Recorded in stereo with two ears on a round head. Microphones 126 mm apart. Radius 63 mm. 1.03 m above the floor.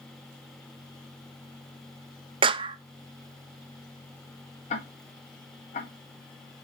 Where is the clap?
35° right (ahead or behind), 0.5 m.